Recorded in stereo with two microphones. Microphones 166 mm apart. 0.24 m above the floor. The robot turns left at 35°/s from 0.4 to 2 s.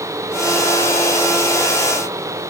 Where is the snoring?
No snoring in this recording.